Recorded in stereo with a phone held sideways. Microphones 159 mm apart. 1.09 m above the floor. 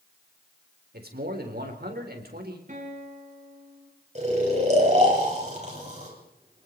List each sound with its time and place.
0.9 s a man speaking: 80° right, 4.5 m
2.7 s a guitar: 50° right (ahead or behind), 6 m
4.2 s snoring: 45° right (ahead or behind), 7.5 m